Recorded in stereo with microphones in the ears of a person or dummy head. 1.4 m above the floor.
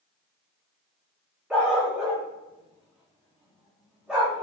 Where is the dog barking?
Centre (ahead or behind), 1.1 m.